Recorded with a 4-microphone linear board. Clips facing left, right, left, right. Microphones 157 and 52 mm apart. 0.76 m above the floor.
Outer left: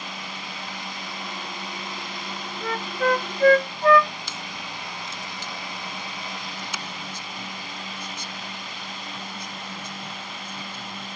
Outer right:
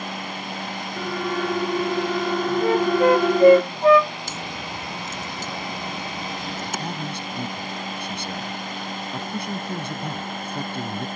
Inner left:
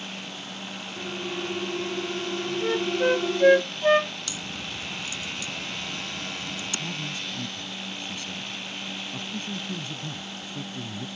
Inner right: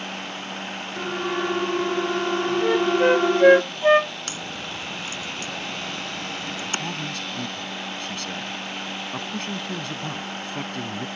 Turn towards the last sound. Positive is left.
turn(degrees=-65)  # may be behind; listen again after turning